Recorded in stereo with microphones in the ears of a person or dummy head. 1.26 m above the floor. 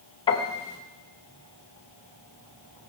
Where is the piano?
30° left (ahead or behind), 1.7 m.